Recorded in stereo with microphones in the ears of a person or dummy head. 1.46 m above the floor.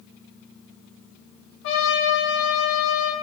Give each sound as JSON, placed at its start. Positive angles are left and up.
{"t": 1.6, "sound": "a trumpet", "side_deg": 85, "distance_m": 0.8}